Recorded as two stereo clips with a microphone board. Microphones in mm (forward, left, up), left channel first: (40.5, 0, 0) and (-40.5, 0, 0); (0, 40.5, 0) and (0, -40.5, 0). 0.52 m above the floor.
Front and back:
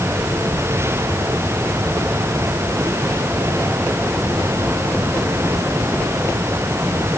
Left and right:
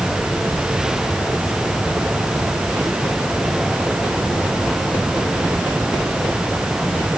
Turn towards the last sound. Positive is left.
No sound to turn to.